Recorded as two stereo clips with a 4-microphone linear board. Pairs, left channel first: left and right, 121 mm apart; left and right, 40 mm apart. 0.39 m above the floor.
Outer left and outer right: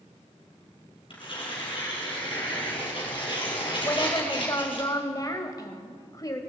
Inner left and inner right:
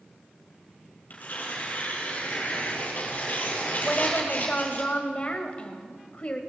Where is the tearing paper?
45° left (ahead or behind), 3.5 m.